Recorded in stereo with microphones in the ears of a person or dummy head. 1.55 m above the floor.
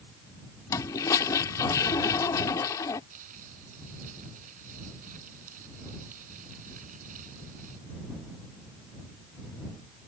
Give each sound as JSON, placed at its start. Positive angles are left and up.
{"t": 0.7, "sound": "a toilet flushing", "side_deg": 20}
{"t": 3.1, "sound": "crumpling", "side_deg": -50}